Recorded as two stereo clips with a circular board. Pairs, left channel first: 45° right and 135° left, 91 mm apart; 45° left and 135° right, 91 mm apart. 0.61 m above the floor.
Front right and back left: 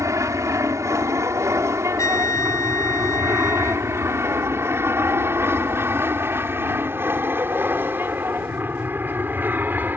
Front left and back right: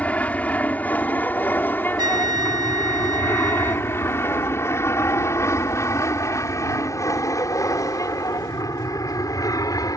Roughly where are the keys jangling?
I don't hear keys jangling.